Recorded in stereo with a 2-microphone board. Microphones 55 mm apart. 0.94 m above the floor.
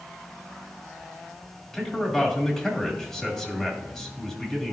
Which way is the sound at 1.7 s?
15° left (ahead or behind).